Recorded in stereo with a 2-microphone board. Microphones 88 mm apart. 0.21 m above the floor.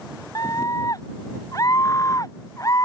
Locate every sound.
0.3 s a scream: 40° left (ahead or behind)